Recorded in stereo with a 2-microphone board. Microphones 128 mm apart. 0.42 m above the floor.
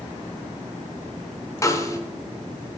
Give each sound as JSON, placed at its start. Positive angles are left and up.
{"t": 1.6, "sound": "a snare drum", "side_deg": 25, "distance_m": 1.0}